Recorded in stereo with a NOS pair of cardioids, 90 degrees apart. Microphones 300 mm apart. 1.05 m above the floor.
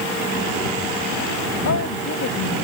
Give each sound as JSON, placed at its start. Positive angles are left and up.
{"t": 1.6, "sound": "a woman speaking", "azimuth_deg": 60}